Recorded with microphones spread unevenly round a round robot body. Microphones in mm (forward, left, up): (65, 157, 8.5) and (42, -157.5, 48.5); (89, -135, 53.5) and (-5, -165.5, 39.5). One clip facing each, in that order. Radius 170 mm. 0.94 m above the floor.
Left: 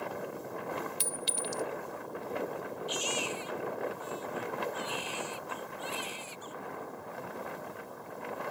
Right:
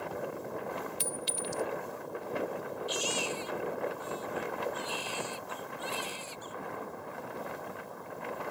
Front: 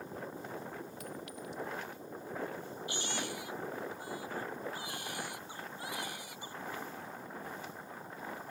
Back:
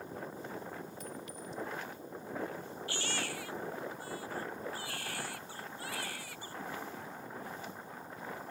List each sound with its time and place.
1.0 s a clink: 85° left
2.9 s a baby crying: 55° right